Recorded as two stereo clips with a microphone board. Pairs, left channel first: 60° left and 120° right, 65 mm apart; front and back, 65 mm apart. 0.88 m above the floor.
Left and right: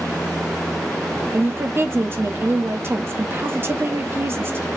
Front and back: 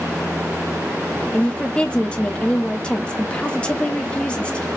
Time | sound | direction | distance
1.3 | a woman speaking | 75° right | 1.0 m